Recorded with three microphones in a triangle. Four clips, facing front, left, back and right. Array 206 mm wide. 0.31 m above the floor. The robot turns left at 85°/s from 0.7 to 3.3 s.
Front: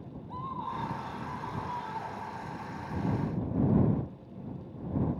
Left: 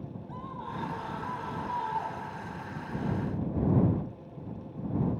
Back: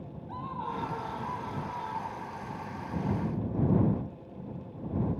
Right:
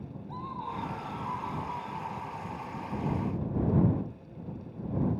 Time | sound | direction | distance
0.3 | a scream | 175° right | ?